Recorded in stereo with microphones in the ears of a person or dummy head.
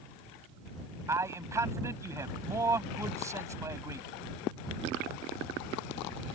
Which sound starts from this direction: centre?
A man speaking, at 1.1 s.